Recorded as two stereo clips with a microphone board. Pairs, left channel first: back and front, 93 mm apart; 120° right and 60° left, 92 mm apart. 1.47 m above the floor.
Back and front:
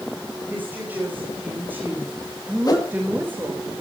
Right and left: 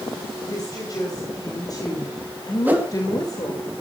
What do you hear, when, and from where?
0.5 s a woman speaking: 70° right, 6 m
2.6 s a whoosh: 130° left, 2 m